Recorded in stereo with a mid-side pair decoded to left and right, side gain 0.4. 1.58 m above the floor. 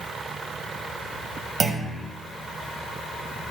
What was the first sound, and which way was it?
A clunk, 50° right.